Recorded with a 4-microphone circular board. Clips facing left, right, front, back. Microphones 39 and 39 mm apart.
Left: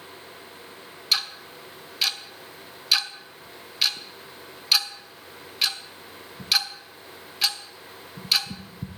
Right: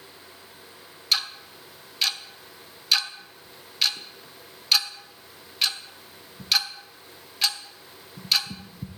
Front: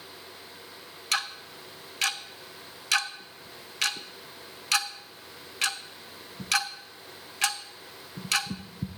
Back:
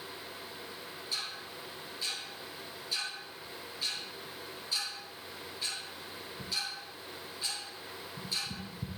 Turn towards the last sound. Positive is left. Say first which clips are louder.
# even, front 10 dB
turn(degrees=5)